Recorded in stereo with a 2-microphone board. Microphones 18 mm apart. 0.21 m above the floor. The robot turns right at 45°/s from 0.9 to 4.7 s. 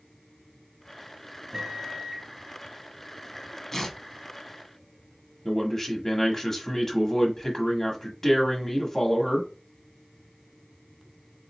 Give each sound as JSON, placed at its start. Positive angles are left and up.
{"t": 1.5, "sound": "a microwave", "azimuth_deg": -90, "distance_m": 0.9}
{"t": 3.7, "sound": "tearing paper", "side_deg": 15, "distance_m": 1.0}
{"t": 5.5, "sound": "a man speaking", "side_deg": 25, "distance_m": 1.2}